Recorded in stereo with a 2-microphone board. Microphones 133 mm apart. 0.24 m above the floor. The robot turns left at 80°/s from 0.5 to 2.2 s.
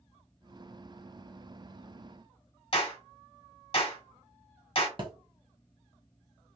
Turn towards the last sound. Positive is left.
turn(degrees=-40)  # may be behind; listen again after turning